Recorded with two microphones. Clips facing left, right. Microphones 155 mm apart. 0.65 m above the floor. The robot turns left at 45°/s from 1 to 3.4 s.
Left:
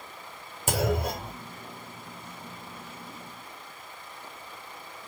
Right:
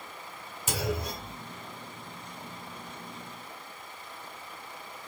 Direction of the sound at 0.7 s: 55° left (ahead or behind).